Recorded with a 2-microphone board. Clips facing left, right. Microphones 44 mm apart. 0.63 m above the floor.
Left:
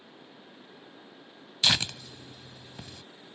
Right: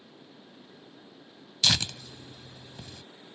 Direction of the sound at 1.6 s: 20° left (ahead or behind).